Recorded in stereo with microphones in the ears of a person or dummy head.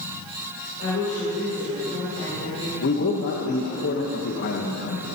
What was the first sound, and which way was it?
A woman speaking, 45° left (ahead or behind).